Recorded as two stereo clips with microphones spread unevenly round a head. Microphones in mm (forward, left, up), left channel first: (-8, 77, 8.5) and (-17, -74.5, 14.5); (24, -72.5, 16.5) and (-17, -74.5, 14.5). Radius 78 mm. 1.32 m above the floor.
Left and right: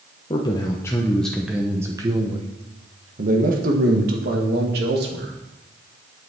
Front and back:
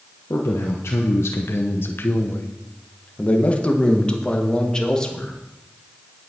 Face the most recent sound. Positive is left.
turn(degrees=-70)